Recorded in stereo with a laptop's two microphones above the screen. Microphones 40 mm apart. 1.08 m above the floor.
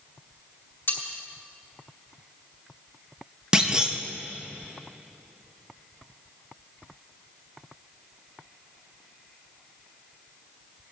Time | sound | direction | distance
0.9 | cutlery clinking | 75° left (ahead or behind) | 2.5 m
3.5 | a clunk | 20° right (ahead or behind) | 0.7 m